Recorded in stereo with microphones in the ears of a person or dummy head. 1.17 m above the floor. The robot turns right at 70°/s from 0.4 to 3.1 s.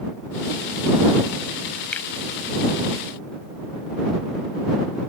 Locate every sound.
1.9 s a finger snap: 10° left (ahead or behind); by 2.1 s 20° left (ahead or behind)